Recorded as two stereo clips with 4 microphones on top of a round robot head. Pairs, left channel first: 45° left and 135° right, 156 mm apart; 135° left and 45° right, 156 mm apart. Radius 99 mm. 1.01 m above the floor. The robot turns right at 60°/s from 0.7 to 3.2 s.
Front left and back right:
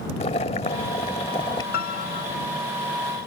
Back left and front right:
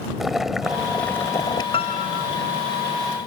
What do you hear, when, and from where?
0.2 s boiling: 40° left; by 1.6 s 95° left
1.7 s a piano: 75° left; by 2.3 s 110° left